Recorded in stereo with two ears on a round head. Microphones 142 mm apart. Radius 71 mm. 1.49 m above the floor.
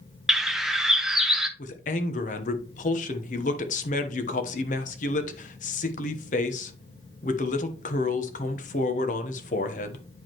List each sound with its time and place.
0.3 s a bird: 5° right (ahead or behind), 0.8 m
1.6 s a man speaking: 50° left (ahead or behind), 1.1 m